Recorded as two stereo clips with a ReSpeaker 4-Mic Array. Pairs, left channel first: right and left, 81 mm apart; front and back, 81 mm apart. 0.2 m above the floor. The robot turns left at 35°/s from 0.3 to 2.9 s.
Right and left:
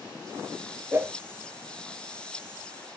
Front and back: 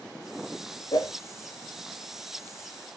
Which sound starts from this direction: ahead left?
A whoosh, at 0.9 s.